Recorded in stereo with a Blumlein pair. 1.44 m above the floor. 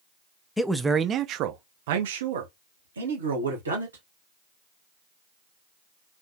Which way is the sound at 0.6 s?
5° left.